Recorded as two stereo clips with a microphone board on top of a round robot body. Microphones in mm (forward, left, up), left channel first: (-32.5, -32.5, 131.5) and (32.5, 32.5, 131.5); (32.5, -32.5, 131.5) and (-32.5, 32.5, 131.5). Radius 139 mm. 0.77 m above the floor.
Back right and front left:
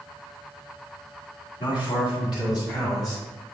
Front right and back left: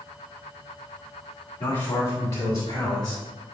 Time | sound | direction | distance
1.6 | a man speaking | 110° right | 2 m